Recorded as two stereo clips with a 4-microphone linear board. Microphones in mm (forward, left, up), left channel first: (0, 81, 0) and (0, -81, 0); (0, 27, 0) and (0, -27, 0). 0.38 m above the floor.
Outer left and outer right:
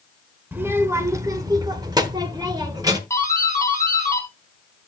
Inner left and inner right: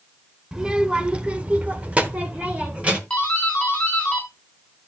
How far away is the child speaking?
About 1.1 m.